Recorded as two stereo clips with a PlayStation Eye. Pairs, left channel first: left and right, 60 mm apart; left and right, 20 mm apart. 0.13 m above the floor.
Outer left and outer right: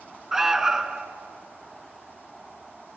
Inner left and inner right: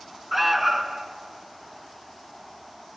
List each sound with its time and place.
0.3 s an alarm: 10° right (ahead or behind), 0.8 m